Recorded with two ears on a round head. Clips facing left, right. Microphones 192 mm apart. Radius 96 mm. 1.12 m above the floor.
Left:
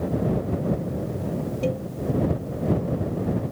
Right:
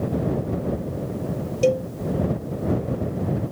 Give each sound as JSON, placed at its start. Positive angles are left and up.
{"t": 1.6, "sound": "a cowbell", "side_deg": -60}